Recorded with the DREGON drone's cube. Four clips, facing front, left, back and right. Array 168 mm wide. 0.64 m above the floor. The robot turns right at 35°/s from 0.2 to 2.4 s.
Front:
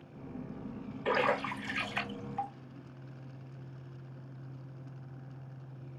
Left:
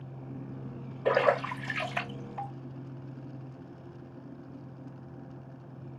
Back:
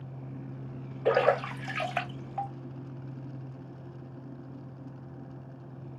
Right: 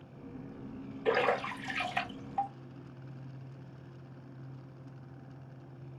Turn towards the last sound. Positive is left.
turn(degrees=-175)